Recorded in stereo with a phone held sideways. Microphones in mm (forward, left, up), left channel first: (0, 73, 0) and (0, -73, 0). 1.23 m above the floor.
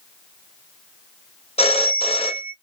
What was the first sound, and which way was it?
A phone ringing, 45° left (ahead or behind).